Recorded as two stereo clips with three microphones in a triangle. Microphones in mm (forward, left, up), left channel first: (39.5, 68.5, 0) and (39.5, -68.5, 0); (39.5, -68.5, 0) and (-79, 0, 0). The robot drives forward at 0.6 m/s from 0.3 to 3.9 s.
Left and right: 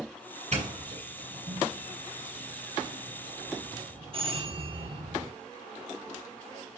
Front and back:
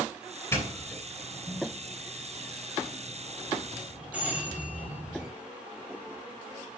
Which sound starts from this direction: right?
A doorbell, at 0.5 s.